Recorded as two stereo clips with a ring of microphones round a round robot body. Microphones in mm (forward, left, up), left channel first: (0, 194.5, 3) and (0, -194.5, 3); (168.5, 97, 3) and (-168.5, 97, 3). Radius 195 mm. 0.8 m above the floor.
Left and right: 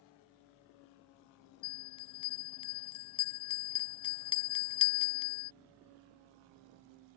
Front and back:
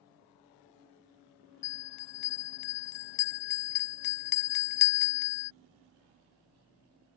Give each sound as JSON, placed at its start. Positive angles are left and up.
{"t": 1.6, "sound": "a bell", "azimuth_deg": 15}